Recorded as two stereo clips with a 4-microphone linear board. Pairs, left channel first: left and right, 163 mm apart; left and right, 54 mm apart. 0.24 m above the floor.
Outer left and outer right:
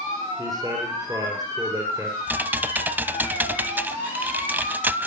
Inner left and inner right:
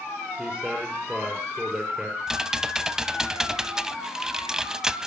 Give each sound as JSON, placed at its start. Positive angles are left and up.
{"t": 0.4, "sound": "a man speaking", "side_deg": -20, "distance_m": 5.0}
{"t": 2.3, "sound": "typing on a keyboard", "side_deg": -10, "distance_m": 0.6}